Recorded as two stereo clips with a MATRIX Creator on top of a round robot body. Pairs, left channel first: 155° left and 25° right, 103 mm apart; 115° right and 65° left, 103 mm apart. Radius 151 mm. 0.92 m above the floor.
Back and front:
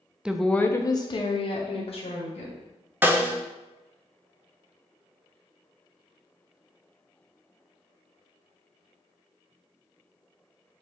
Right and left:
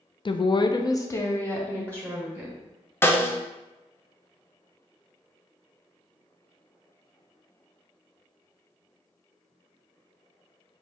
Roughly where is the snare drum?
Right.